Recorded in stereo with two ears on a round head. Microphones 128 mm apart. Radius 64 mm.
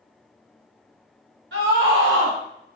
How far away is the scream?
About 1.7 m.